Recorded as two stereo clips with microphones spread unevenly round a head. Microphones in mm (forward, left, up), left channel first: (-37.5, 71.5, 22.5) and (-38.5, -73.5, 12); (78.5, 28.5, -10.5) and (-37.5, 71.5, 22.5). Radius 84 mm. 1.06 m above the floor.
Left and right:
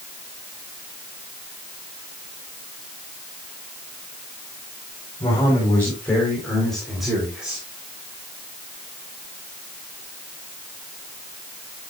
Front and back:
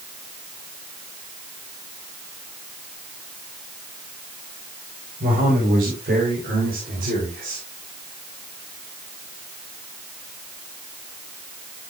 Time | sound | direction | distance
5.2 | a man speaking | 160° left | 4 m